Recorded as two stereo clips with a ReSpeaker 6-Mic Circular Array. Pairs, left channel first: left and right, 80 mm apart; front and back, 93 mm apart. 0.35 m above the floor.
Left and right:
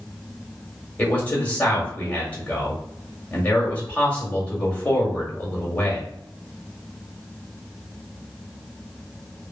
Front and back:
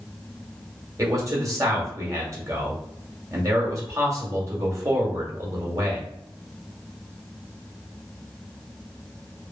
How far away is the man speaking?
About 1.3 m.